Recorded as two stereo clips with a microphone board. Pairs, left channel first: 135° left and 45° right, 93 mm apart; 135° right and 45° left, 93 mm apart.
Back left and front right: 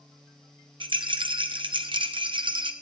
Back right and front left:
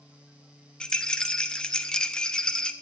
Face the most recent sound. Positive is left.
turn(degrees=-55)